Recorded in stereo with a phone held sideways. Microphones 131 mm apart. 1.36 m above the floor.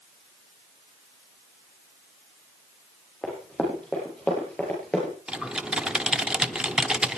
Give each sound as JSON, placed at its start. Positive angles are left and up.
{"t": 3.2, "sound": "running footsteps", "side_deg": 10, "distance_m": 9.0}
{"t": 5.3, "sound": "typing on a keyboard", "side_deg": -5, "distance_m": 0.9}